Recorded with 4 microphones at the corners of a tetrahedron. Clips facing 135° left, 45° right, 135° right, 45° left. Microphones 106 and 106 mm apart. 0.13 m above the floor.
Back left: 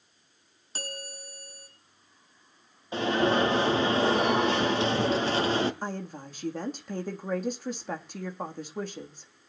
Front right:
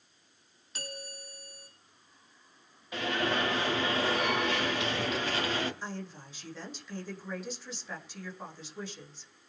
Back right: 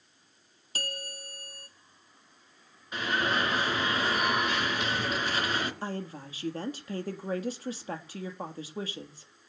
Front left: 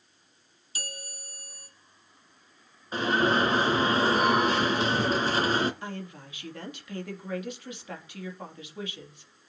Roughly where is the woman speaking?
Behind.